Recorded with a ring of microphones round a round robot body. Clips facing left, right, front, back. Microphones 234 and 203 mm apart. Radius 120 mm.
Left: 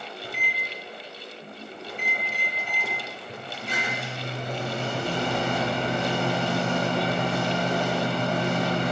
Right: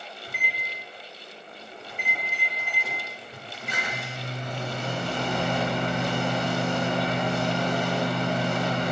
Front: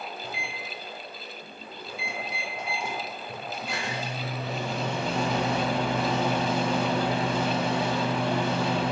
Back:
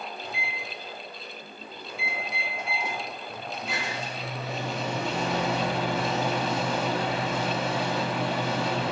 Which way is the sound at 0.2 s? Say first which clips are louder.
Left 4 dB, even; 90° left.